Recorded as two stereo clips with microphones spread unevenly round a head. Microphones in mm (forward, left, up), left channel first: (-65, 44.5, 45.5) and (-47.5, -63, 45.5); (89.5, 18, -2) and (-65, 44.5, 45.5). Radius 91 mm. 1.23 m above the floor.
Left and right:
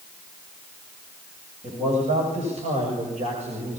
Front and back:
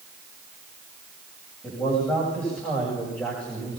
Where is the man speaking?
95° right, 8 m; by 3.8 s 90° right, 6 m.